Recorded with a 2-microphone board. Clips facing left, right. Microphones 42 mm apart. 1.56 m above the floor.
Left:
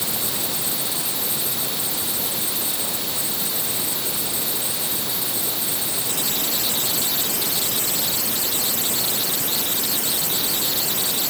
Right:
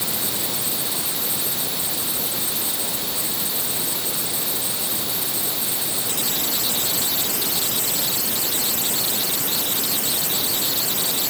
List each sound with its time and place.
Only background noise.